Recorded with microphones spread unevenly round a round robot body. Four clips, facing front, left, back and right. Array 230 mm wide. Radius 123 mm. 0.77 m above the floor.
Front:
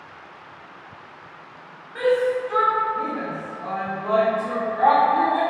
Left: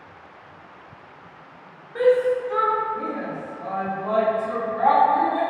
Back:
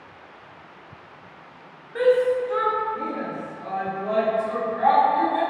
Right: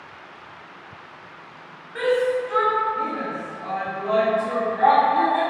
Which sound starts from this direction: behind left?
A shout, at 1.9 s.